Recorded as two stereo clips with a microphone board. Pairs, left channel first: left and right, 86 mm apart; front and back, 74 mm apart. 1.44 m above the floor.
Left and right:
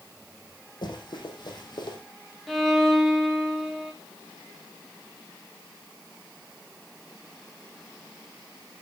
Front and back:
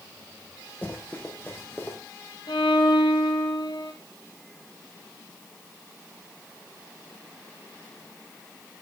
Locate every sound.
0.8 s running footsteps: 65° left, 4 m
2.5 s a violin: straight ahead, 2.5 m